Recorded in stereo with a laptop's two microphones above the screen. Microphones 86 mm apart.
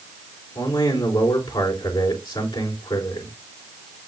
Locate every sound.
0.6 s a man speaking: 75° left (ahead or behind), 4 m